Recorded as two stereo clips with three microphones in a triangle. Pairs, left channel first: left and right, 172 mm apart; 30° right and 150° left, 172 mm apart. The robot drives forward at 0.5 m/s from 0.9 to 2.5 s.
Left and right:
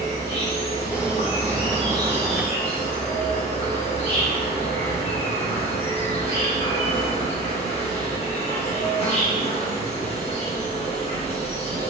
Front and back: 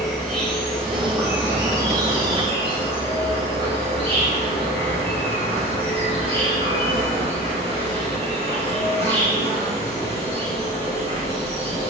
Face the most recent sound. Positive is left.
turn(degrees=115)